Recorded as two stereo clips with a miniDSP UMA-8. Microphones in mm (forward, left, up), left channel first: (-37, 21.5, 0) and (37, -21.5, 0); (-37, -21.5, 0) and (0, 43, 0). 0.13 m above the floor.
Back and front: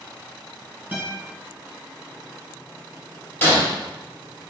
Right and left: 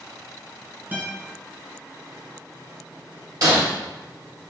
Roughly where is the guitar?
Ahead.